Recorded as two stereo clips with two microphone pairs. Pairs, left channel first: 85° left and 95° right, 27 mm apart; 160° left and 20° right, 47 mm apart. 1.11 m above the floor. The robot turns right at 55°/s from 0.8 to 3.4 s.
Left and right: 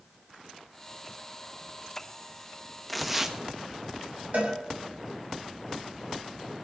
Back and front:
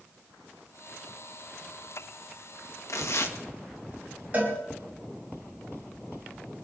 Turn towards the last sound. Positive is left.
turn(degrees=-75)